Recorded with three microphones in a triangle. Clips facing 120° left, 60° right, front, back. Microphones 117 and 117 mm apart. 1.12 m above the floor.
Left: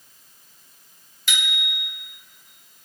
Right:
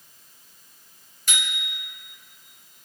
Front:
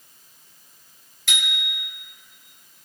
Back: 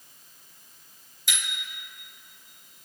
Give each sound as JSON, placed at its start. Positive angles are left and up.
{"t": 1.3, "sound": "a bicycle bell", "azimuth_deg": -15, "distance_m": 4.0}